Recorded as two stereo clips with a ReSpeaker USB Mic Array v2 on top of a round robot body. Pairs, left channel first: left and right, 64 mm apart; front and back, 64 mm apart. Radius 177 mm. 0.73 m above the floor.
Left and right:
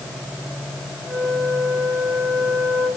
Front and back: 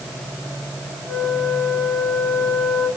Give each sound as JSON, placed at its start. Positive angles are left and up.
{"t": 1.1, "sound": "a flute", "azimuth_deg": -115, "distance_m": 8.0}